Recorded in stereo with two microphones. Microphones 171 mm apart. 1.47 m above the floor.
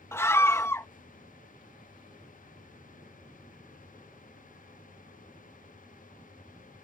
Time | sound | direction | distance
0.1 | a scream | 15° left (ahead or behind) | ?